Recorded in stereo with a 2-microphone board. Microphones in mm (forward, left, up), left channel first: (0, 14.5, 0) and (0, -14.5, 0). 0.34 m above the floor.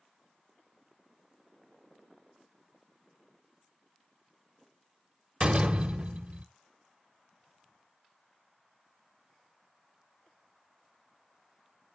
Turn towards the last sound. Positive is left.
turn(degrees=-40)  # may be behind; listen again after turning